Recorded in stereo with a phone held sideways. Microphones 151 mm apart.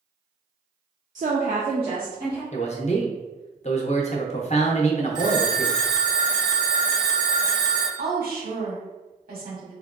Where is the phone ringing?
55° left (ahead or behind), 0.8 m.